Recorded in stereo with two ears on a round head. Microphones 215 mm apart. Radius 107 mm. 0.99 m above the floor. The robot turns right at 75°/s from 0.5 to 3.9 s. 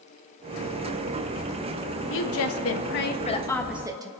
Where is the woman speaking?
60° left, 1.1 m; by 4.1 s 165° right, 1.1 m.